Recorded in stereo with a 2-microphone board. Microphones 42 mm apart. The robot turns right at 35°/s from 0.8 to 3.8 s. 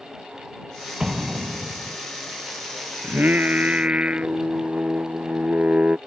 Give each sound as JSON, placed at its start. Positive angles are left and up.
{"t": 1.0, "sound": "an explosion", "azimuth_deg": -165}
{"t": 3.0, "sound": "singing", "side_deg": -50}